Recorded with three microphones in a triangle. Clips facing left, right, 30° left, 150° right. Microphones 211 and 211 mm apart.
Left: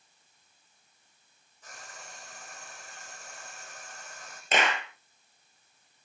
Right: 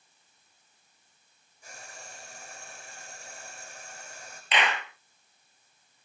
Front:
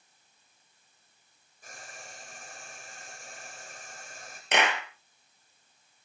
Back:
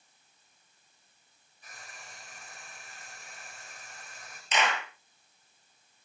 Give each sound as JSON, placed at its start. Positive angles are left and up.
{"t": 1.6, "sound": "frying", "azimuth_deg": -10, "distance_m": 8.0}
{"t": 4.5, "sound": "a clap", "azimuth_deg": 50, "distance_m": 3.5}